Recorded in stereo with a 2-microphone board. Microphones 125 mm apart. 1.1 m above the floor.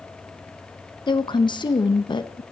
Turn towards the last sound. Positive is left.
turn(degrees=40)  # may be behind; listen again after turning